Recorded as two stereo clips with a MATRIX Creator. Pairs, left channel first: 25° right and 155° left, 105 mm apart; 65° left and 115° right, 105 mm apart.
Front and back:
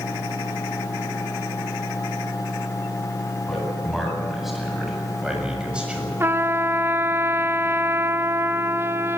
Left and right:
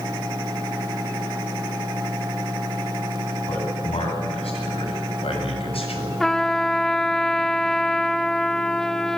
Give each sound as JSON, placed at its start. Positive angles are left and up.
{"t": 3.5, "sound": "a man speaking", "azimuth_deg": 65, "distance_m": 8.5}
{"t": 6.2, "sound": "a trumpet", "azimuth_deg": 145, "distance_m": 0.5}